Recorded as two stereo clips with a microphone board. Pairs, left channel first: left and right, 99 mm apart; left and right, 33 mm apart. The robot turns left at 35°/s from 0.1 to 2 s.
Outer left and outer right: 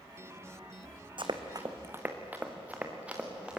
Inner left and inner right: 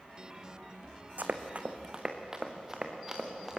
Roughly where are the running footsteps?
Right.